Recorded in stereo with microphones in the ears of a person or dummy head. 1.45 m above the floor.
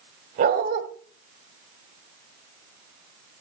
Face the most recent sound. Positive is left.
turn(degrees=-45)  # may be behind; listen again after turning